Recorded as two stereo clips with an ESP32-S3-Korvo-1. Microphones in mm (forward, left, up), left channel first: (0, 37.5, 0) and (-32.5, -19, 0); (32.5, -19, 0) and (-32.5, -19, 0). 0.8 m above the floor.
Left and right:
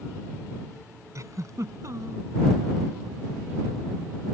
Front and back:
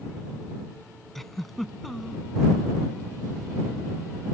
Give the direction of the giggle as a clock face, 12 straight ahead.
3 o'clock.